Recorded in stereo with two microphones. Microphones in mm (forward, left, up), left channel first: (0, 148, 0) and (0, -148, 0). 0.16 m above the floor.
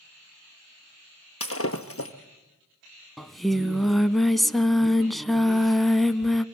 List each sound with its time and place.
1.4 s breaking glass: 50° left (ahead or behind), 1.6 m
3.2 s singing: centre (ahead or behind), 0.7 m